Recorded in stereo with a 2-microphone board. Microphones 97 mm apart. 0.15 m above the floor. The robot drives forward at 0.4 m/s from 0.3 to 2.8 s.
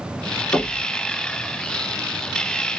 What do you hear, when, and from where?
0.5 s knocking: 35° left (ahead or behind), 1.0 m